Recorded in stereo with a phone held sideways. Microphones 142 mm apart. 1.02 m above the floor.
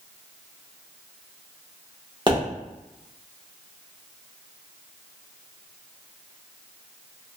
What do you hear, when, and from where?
2.3 s a pop: 35° right (ahead or behind), 1.4 m